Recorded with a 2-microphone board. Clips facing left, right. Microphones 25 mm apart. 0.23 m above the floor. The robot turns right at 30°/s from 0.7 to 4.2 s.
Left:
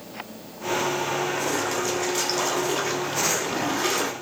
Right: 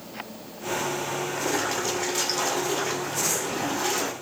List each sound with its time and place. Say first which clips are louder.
1.4 s a splash: left 1 dB; 25° right, 1.0 m; by 4.1 s 60° left, 1.0 m